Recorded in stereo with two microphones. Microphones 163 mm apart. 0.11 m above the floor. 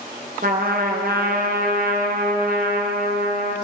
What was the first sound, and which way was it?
A trumpet, 60° right (ahead or behind).